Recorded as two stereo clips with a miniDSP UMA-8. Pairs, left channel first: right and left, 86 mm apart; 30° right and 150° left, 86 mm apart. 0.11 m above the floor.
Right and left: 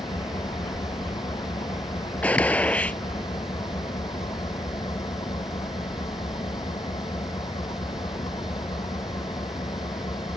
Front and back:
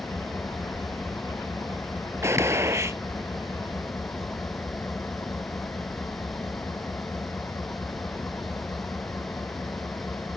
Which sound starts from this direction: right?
An engine running, at 0.0 s.